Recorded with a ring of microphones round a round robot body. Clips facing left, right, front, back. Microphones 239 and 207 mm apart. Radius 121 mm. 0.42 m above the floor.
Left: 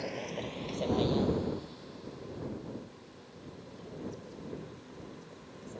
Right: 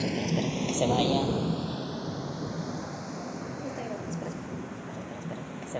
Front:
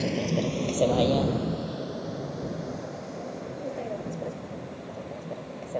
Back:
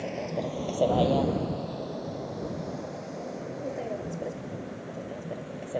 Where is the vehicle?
50° right; by 5.8 s 100° right.